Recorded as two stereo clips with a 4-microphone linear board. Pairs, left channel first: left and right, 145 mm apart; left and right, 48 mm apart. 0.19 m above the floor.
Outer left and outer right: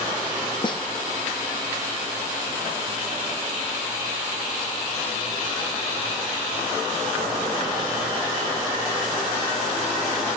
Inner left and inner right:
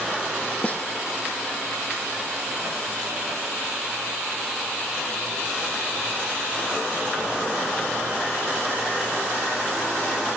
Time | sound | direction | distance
0.6 | a snare drum | 35° left (ahead or behind) | 2.5 m